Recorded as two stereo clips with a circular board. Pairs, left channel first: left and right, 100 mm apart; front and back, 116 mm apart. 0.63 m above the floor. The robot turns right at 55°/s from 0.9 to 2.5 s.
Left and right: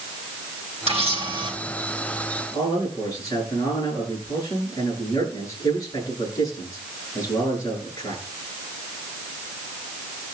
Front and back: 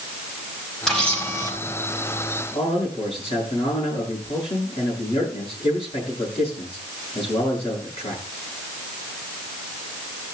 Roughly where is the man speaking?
Ahead left.